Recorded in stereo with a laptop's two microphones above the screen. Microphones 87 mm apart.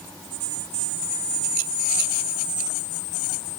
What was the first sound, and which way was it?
Only background noise.